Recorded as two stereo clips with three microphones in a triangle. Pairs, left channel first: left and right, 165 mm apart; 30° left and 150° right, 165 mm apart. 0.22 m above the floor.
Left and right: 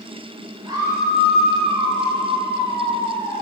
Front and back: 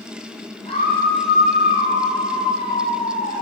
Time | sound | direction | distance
0.7 | a scream | 25° right | 9.5 m